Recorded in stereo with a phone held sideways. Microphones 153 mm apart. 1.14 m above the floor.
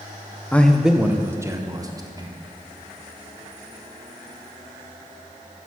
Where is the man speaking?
10° left (ahead or behind), 0.6 m; by 2.3 s 25° right (ahead or behind), 1.6 m.